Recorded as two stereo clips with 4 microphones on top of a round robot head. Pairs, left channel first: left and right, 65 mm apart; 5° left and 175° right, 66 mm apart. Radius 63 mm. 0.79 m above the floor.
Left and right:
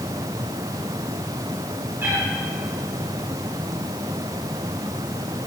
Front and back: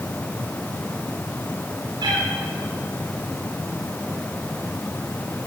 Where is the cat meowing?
155° right, 7.5 m.